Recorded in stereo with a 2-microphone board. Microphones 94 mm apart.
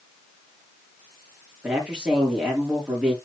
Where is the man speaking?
10° right (ahead or behind), 5.5 m.